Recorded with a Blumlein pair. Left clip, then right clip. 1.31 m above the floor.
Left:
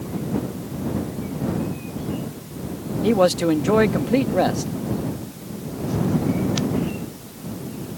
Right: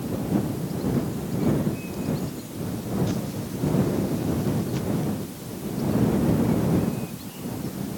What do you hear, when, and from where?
3.0 s a man speaking: 45° left